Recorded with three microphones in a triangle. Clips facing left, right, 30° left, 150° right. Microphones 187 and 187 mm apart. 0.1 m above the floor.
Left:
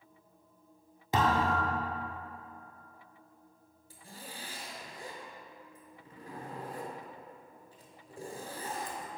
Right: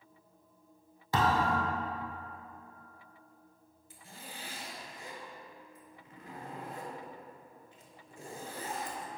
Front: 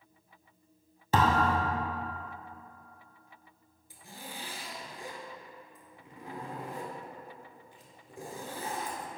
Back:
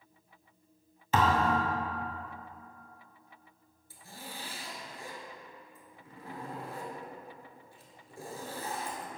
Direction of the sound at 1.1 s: 35° left.